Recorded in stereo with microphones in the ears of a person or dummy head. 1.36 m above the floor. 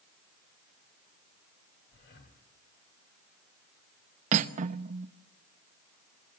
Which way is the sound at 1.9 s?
60° left (ahead or behind).